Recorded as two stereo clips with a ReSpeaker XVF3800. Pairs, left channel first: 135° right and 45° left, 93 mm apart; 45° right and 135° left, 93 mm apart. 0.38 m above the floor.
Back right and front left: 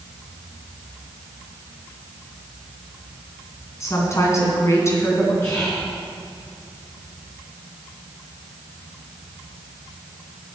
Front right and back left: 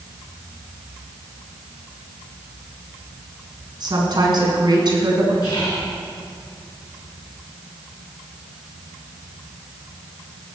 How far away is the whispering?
About 4.5 m.